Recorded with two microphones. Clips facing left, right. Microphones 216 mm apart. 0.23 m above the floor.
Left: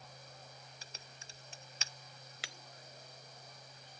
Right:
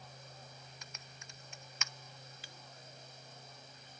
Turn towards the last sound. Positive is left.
turn(degrees=80)